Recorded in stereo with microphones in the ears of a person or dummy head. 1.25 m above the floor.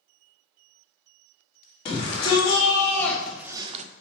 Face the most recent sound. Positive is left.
turn(degrees=-45)  # may be behind; listen again after turning